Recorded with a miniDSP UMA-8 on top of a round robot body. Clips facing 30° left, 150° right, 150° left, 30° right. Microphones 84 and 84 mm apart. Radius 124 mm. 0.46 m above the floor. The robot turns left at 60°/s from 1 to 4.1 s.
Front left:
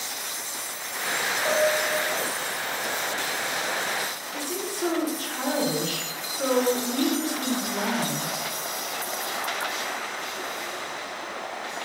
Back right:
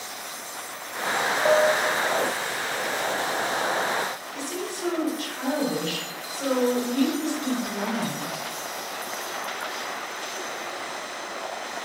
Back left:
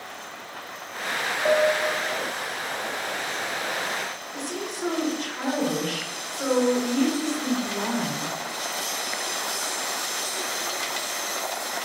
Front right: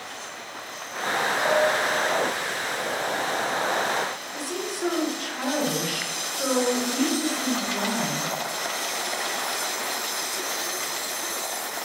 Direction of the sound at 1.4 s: 170° right.